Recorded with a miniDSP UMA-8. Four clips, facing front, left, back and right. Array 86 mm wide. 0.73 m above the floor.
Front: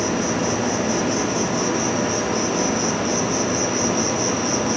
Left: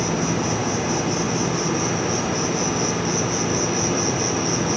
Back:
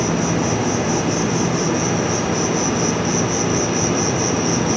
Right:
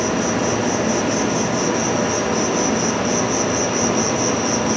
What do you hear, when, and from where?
0.0 s an insect: 160° left, 0.8 m